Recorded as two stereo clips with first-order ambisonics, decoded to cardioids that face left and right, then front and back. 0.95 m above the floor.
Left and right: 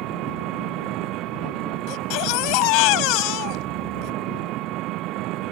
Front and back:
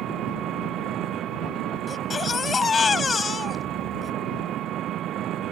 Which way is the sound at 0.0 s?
125° right.